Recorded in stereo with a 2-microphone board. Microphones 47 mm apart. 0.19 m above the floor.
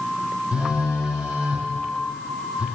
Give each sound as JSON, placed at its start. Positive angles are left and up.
{"t": 0.5, "sound": "a phone buzzing", "side_deg": -15, "distance_m": 3.0}